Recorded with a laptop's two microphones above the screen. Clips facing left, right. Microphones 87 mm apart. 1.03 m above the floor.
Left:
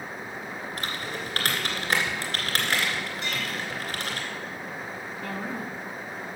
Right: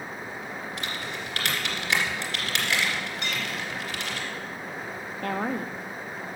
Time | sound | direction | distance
0.8 | typing on a keyboard | 45° left (ahead or behind) | 2.0 m
3.2 | a clink | 75° right (ahead or behind) | 5.5 m
5.2 | a woman speaking | 55° right (ahead or behind) | 1.2 m